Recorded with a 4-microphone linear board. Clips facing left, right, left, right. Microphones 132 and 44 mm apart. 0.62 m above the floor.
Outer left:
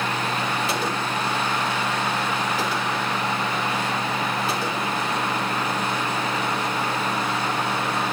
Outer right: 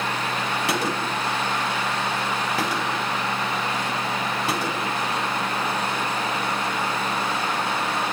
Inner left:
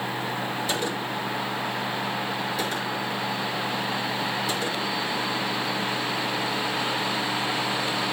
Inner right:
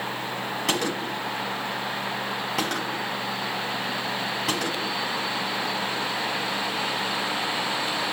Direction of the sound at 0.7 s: 85° right.